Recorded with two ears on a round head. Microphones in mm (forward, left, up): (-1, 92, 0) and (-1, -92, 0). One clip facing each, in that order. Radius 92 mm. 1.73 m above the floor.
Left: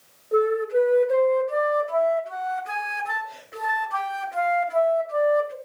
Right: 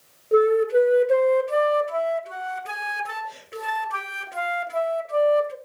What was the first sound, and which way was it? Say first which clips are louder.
A flute: right 3 dB; 40° right (ahead or behind).